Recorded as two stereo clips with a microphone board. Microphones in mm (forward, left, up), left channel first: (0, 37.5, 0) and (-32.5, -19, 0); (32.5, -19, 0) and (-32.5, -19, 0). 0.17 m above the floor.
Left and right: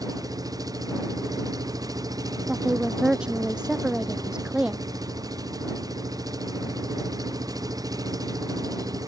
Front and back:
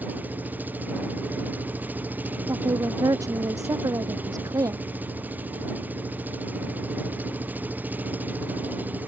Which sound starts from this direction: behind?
A woman speaking, at 2.5 s.